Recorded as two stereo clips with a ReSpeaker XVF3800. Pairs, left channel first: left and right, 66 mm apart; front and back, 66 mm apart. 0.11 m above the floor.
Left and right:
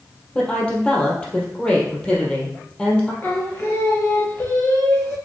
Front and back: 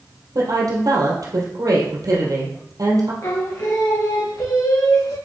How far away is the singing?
About 2.5 m.